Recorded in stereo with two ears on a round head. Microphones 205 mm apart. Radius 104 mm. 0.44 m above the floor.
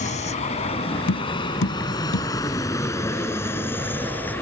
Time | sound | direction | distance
0.0 | an aircraft | 30° left (ahead or behind) | ?
1.1 | tapping | 65° left (ahead or behind) | ?